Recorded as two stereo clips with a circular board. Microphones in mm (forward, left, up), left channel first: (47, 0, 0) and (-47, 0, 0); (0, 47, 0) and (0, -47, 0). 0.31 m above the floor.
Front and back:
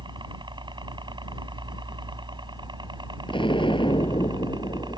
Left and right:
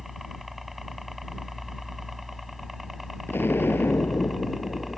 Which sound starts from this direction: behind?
A helicopter, at 0.0 s.